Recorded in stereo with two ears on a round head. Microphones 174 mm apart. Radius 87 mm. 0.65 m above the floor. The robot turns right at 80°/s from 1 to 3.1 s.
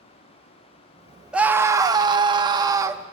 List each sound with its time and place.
1.3 s a scream: 5° right (ahead or behind), 1.0 m; by 3.0 s 10° right (ahead or behind), 1.0 m